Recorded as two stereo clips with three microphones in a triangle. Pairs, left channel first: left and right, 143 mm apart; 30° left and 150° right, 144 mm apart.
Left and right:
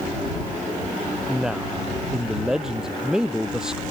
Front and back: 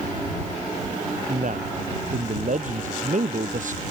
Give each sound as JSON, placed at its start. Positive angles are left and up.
{"t": 1.3, "sound": "a man speaking", "azimuth_deg": -175}